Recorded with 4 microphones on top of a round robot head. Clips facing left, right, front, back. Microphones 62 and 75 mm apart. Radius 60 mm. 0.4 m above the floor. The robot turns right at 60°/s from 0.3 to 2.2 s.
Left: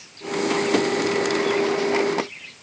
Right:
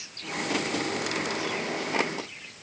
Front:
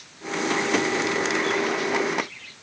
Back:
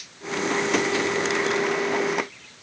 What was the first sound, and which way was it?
Only background noise.